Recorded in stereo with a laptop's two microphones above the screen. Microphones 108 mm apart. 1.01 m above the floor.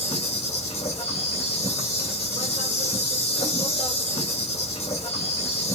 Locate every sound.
0.0 s an insect: 85° left, 2 m